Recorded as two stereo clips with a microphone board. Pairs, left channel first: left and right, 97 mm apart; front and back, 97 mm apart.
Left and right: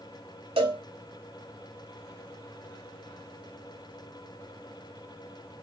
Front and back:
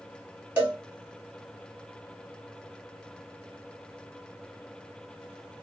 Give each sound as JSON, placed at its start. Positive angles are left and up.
{"t": 0.6, "sound": "a cowbell", "azimuth_deg": -105, "distance_m": 2.5}